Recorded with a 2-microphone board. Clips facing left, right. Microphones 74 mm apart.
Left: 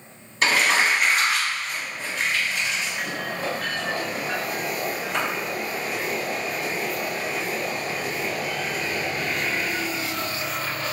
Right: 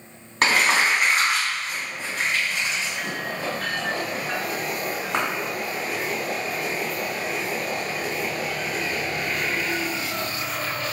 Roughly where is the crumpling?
Right.